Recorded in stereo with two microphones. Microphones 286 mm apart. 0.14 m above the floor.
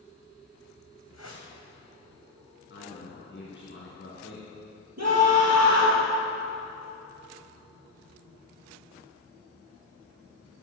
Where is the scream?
65° right (ahead or behind), 3 m.